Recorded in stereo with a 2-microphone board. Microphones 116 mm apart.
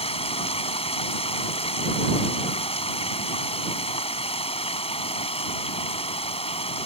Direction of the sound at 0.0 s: 60° left (ahead or behind).